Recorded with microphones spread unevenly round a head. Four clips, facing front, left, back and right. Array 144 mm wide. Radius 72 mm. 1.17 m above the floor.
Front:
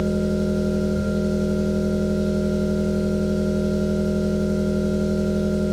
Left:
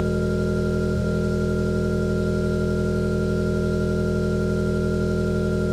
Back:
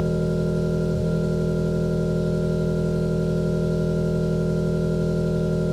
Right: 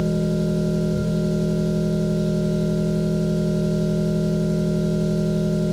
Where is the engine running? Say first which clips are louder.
Right 1 dB, front 2 dB; 130° right, 0.9 m.